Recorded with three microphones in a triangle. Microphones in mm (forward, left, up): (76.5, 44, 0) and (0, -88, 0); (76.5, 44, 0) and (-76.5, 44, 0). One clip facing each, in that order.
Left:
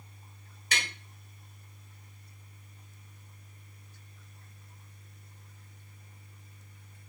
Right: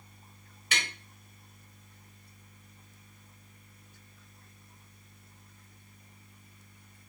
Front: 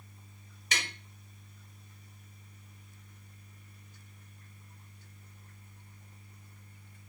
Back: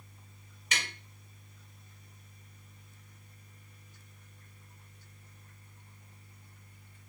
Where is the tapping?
35° left, 1.6 m.